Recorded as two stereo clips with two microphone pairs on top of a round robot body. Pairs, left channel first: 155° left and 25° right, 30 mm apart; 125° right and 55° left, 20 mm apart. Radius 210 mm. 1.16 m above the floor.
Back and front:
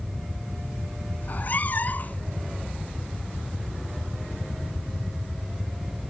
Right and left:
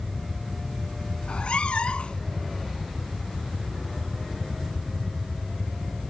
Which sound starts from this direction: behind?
A cat meowing, at 1.2 s.